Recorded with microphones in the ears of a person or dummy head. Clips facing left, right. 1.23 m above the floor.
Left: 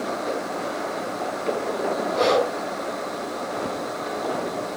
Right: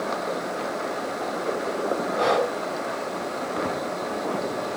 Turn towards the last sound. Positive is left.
turn(degrees=45)  # may be behind; listen again after turning